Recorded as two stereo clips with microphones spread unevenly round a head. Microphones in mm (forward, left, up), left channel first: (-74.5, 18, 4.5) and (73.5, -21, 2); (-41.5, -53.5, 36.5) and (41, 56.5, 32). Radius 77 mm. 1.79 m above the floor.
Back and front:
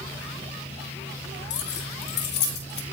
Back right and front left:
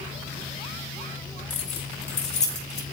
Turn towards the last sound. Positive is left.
turn(degrees=-165)